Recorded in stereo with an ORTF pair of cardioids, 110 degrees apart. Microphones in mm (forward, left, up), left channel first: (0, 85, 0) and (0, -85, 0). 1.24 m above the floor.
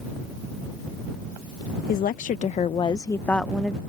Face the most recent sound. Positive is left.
turn(degrees=-10)